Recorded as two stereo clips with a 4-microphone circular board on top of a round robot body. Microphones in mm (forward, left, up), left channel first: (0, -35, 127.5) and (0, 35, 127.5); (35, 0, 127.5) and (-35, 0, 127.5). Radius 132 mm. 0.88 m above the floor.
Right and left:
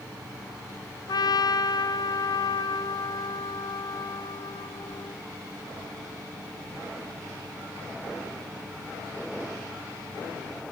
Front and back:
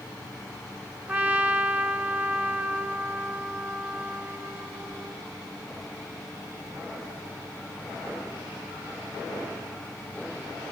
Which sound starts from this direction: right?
A trumpet, at 1.1 s.